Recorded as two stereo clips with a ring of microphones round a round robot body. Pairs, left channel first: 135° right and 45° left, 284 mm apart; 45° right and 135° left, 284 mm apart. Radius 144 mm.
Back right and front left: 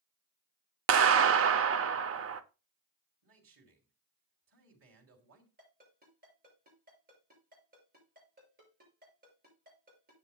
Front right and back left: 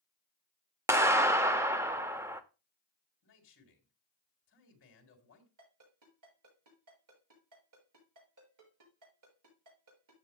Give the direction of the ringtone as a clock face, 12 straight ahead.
8 o'clock.